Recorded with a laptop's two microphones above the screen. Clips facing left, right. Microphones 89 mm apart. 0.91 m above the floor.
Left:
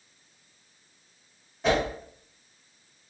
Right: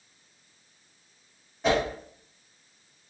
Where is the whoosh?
Centre (ahead or behind), 1.5 m.